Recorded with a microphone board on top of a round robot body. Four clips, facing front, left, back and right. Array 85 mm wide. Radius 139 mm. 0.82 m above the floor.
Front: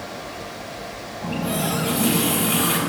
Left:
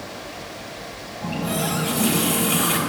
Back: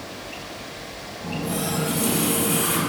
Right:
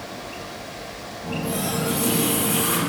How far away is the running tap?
About 4 m.